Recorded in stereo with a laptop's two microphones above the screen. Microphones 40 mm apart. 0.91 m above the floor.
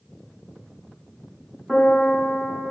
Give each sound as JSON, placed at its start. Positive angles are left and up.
{"t": 1.7, "sound": "a piano", "side_deg": 10, "distance_m": 1.2}